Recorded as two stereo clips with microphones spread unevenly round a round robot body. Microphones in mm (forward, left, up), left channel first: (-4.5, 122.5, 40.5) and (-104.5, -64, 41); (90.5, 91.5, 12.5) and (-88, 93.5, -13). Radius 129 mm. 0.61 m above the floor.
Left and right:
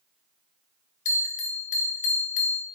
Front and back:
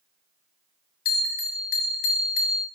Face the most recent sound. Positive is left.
turn(degrees=20)